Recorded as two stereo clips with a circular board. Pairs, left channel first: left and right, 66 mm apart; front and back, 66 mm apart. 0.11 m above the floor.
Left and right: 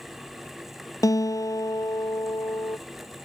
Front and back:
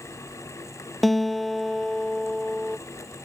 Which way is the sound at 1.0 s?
85° left.